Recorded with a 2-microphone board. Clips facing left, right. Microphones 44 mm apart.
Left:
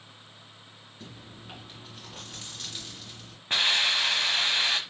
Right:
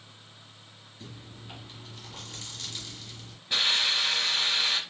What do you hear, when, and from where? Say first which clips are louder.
1.0 s chewing: even; 25° left (ahead or behind), 2.5 m
3.5 s a hiss: left 2 dB; 45° left (ahead or behind), 1.0 m